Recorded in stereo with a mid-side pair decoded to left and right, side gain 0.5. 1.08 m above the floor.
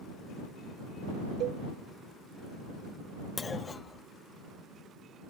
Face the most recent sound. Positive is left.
turn(degrees=30)